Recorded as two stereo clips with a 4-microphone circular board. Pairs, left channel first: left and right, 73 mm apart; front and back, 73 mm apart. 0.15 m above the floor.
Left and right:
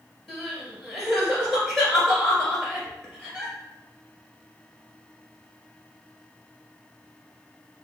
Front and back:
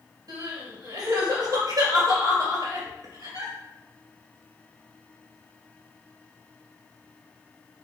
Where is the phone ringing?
No phone ringing in this recording.